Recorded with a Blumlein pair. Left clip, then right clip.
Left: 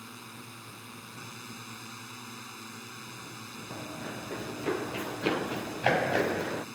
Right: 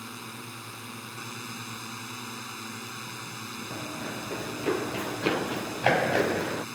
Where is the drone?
15° right.